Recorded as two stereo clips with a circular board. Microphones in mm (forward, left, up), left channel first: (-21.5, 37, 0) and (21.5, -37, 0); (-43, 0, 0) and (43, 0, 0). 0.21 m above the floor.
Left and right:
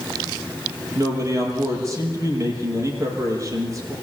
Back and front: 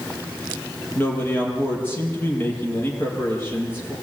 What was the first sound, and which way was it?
A man speaking, 115° right.